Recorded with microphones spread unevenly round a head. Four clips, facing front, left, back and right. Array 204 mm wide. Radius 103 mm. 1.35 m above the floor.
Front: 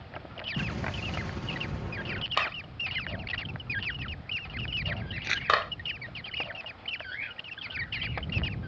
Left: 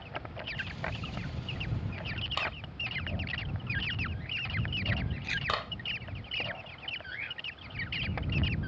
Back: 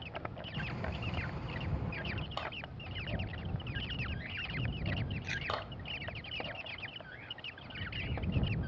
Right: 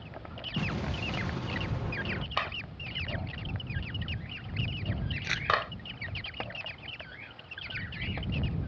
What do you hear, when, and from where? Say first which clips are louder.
0.6 s an explosion: right 7 dB, front 6 dB; 50° right
2.4 s a clap: left 1 dB, front 9 dB; 10° right
5.2 s crumpling: right 1 dB, front 6 dB; 30° right